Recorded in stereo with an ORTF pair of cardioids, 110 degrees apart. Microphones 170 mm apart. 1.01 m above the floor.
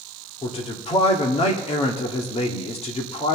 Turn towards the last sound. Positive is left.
turn(degrees=35)